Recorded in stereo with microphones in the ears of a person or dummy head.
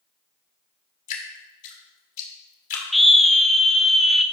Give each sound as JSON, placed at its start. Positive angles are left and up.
{"t": 1.1, "sound": "dripping", "side_deg": 45, "distance_m": 1.5}
{"t": 2.9, "sound": "a scream", "side_deg": 0, "distance_m": 0.5}